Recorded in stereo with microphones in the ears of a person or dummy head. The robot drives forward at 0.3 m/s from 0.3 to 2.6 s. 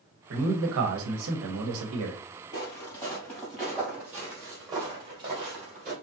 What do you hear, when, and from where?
0.3 s a man speaking: 65° right (ahead or behind), 1.0 m; by 2.2 s 70° right (ahead or behind), 0.9 m
2.5 s footsteps: 20° left (ahead or behind), 1.5 m; by 5.9 s 35° right (ahead or behind), 2 m